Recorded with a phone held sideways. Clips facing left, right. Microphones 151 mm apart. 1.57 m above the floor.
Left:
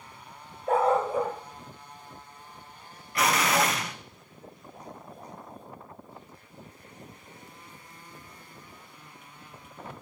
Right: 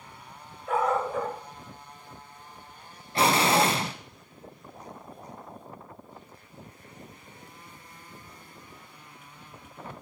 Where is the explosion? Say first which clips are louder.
Right 3 dB; 30° right (ahead or behind), 0.7 m.